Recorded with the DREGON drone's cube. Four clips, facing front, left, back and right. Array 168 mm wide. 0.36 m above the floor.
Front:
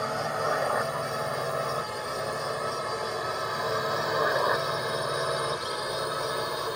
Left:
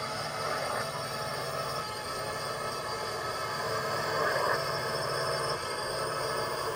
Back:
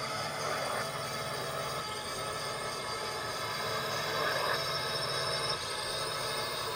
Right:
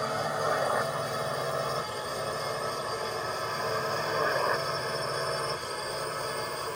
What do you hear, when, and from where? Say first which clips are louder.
0.0 s a drone: right 5 dB, front 8 dB; 40° right; by 6.8 s 15° left